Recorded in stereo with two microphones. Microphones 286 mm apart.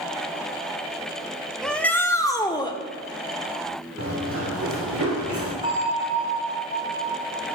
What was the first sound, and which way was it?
A shout, centre (ahead or behind).